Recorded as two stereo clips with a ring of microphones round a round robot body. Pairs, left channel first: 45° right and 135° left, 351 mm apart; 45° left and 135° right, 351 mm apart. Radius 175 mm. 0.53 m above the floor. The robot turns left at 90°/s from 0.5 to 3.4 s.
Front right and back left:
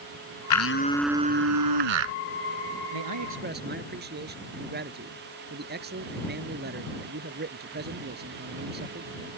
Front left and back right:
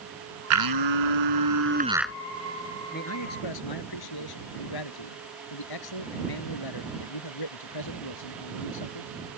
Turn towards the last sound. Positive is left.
turn(degrees=70)